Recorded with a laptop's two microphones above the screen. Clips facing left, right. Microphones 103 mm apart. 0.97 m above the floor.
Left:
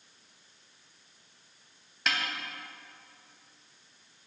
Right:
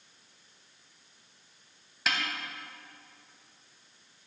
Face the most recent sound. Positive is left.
turn(degrees=0)  # may be behind; listen again after turning